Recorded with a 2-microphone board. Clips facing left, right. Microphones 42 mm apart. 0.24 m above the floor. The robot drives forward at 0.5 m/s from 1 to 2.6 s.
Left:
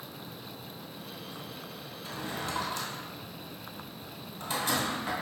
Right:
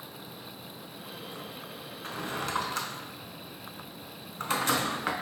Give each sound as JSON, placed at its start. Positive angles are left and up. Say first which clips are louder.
{"t": 2.0, "sound": "a drawer", "louder": "right 2 dB", "side_deg": -60, "distance_m": 0.5}